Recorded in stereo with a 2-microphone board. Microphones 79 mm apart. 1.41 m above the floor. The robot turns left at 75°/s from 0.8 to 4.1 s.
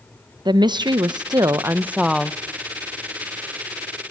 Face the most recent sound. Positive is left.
turn(degrees=35)